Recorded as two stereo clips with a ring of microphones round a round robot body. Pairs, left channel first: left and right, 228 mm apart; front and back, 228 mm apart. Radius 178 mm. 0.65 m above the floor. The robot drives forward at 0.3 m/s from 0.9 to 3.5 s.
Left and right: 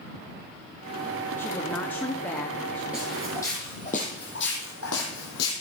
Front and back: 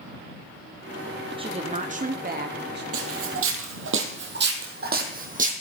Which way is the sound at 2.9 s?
175° right.